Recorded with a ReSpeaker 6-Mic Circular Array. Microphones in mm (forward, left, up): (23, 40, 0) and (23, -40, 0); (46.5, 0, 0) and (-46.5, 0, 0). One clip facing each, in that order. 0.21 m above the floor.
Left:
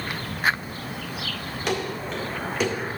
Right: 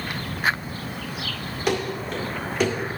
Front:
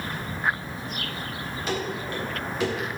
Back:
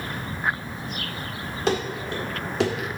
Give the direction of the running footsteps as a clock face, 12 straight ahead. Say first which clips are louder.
Right 3 dB, back 5 dB; 6 o'clock.